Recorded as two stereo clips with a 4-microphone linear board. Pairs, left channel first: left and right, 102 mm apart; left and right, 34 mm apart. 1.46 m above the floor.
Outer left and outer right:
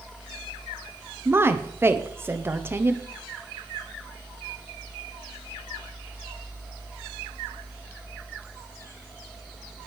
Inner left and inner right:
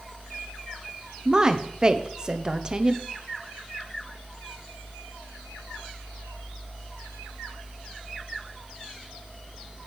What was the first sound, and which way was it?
A woman speaking, 20° right (ahead or behind).